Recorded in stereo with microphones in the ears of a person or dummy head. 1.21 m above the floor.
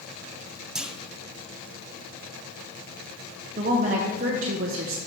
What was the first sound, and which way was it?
A clunk, centre (ahead or behind).